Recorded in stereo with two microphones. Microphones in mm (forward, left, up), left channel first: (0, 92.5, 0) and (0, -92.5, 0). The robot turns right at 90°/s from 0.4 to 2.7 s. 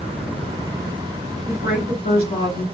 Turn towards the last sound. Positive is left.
turn(degrees=170)